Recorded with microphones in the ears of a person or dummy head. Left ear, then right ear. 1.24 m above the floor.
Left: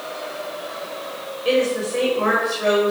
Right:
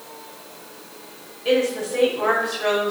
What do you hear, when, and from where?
1.4 s a woman speaking: 5° left (ahead or behind), 6 m